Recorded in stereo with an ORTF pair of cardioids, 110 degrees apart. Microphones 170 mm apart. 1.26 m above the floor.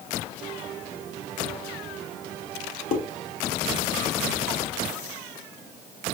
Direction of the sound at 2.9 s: 50° left.